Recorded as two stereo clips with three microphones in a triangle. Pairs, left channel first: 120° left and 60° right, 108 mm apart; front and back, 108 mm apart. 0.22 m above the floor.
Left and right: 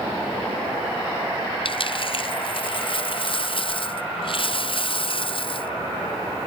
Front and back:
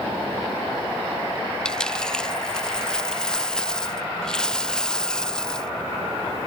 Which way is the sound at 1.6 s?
85° left.